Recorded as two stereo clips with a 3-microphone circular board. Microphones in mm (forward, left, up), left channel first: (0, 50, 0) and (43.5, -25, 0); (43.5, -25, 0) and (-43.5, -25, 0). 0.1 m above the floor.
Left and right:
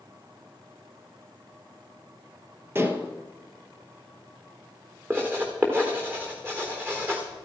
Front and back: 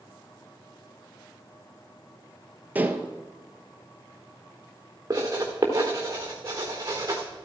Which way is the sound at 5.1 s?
125° right.